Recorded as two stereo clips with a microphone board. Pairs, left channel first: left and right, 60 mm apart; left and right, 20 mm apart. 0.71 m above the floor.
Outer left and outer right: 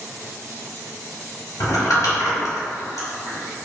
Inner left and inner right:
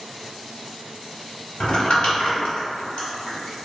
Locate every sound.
1.6 s crumpling: 75° left (ahead or behind), 1.3 m